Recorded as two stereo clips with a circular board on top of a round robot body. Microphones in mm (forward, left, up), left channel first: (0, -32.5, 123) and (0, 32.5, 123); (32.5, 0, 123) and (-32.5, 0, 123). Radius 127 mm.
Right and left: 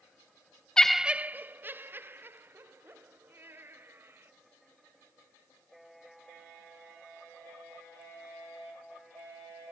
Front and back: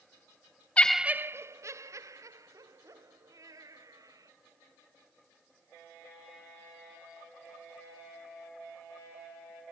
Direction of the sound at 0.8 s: 30° right.